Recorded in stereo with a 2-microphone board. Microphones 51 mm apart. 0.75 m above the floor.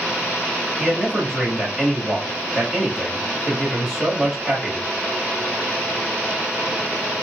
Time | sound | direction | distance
0.8 | a man speaking | centre (ahead or behind) | 1.8 m